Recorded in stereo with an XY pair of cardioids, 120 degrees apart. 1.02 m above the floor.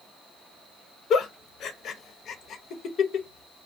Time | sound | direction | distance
1.1 | a giggle | 55° left | 0.6 m